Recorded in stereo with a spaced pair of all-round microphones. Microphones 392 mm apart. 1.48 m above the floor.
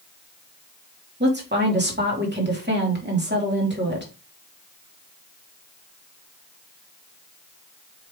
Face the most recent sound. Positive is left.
turn(degrees=-25)  # may be behind; listen again after turning